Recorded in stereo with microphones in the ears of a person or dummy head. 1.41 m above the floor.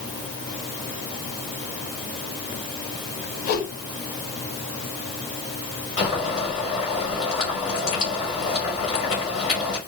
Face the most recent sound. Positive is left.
turn(degrees=30)  # may be behind; listen again after turning